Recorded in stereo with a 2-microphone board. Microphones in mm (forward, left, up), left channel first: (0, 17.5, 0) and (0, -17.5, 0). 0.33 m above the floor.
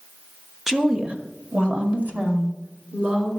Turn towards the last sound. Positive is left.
turn(degrees=-60)  # may be behind; listen again after turning